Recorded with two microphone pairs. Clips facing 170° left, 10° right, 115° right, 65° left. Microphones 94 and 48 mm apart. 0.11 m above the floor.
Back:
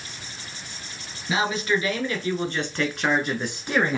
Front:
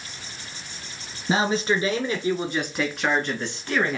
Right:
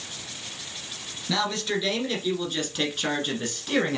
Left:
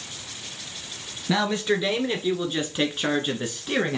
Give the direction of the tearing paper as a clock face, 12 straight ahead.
No tearing paper in this recording.